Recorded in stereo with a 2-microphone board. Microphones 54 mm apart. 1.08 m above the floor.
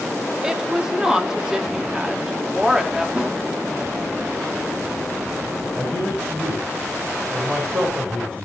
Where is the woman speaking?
10° right (ahead or behind), 2.5 m.